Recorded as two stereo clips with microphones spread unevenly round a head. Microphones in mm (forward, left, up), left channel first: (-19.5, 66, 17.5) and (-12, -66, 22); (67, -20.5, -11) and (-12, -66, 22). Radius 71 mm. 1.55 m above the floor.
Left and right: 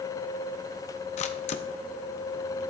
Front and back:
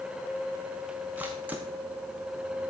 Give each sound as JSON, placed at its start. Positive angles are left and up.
{"t": 1.2, "sound": "a camera shutter", "azimuth_deg": 135, "distance_m": 0.7}